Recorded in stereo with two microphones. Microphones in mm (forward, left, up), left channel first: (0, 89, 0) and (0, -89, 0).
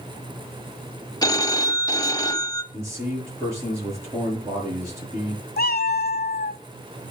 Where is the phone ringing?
25° left (ahead or behind), 0.8 m.